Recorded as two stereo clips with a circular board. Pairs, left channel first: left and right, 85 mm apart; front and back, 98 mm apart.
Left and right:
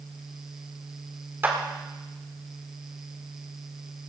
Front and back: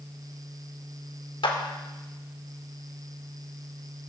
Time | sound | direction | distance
1.4 | a clap | 25° right | 1.9 m